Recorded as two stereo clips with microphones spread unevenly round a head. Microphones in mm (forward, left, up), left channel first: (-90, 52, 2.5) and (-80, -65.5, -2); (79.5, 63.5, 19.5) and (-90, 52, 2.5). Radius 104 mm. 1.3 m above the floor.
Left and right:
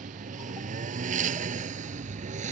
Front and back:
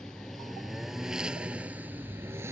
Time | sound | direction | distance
0.0 | a lawn mower | 85° right | ?